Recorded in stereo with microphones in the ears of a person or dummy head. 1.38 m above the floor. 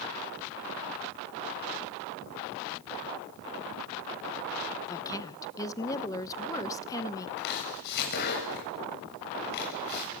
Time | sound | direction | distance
4.9 | a woman speaking | 20° left (ahead or behind) | 0.8 m
7.4 | chopping | 55° left (ahead or behind) | 6.5 m